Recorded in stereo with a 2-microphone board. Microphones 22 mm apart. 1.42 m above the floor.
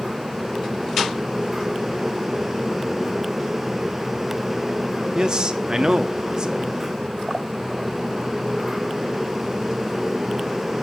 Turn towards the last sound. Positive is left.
turn(degrees=-35)  # may be behind; listen again after turning